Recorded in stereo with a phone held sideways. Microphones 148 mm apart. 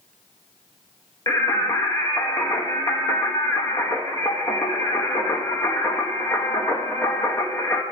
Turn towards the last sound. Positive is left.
turn(degrees=25)  # may be behind; listen again after turning